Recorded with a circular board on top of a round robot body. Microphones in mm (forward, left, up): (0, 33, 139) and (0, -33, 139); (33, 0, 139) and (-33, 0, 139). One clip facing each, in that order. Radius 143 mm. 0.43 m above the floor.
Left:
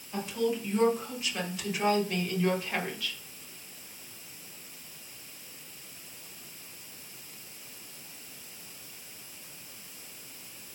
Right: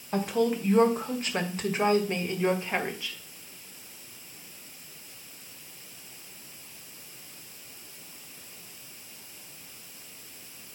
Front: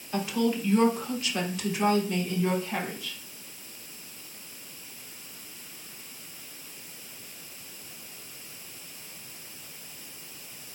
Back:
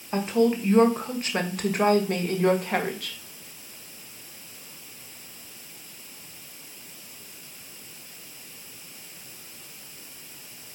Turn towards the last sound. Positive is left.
turn(degrees=-160)